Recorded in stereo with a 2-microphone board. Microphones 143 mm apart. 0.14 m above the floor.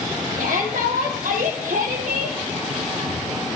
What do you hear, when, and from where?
0.4 s a shout: 75° right (ahead or behind), 4 m